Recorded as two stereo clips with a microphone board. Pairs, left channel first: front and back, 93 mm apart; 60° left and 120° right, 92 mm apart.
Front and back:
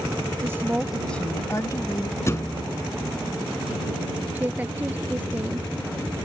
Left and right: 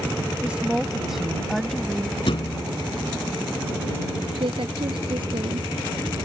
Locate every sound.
0.4 s a woman speaking: straight behind; by 2.2 s 20° right
2.3 s a thud: 55° left
4.3 s a woman speaking: 110° right